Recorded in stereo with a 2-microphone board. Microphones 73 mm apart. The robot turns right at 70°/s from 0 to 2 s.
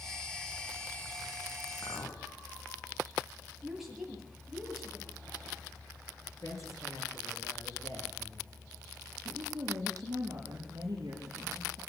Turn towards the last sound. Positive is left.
turn(degrees=-55)  # may be behind; listen again after turning